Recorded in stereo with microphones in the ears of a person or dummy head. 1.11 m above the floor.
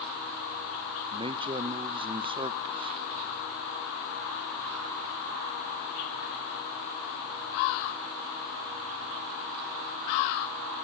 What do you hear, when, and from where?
1.1 s a man speaking: 20° right (ahead or behind), 0.6 m